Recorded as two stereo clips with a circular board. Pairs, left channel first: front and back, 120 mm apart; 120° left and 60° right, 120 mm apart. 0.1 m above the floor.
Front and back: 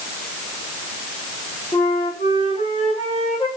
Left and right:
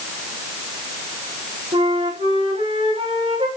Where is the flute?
30° right, 6.5 m.